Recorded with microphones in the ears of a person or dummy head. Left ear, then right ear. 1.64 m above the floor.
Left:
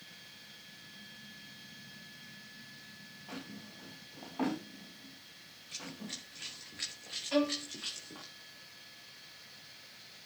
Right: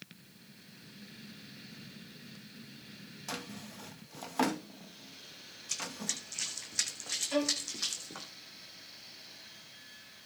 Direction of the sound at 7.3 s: 10° left (ahead or behind).